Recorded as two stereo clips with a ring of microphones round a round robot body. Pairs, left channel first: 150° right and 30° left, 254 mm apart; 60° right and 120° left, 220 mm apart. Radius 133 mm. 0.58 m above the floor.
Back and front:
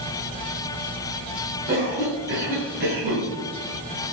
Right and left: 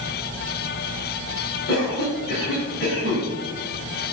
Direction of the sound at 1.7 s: 25° right.